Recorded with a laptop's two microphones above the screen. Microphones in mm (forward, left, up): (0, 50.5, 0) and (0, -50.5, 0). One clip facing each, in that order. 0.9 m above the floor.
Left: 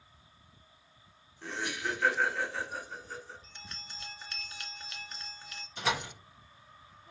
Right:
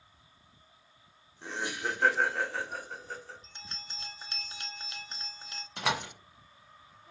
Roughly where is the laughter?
Centre.